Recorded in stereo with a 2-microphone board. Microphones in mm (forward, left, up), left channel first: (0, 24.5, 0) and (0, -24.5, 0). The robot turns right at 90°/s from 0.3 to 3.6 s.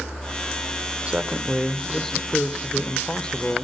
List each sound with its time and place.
1.1 s a man speaking: 25° right (ahead or behind), 1.0 m; by 3.6 s 10° left (ahead or behind), 1.0 m